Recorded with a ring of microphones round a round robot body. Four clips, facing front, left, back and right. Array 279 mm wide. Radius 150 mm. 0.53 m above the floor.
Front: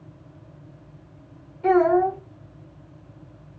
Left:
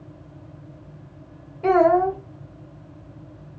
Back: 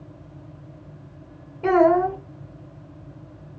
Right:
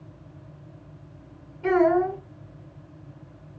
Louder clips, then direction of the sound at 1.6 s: Left 4 dB, back 1 dB; 145° left.